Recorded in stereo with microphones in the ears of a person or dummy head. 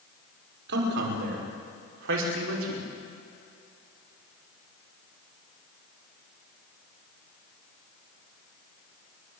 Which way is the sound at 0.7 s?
70° right (ahead or behind).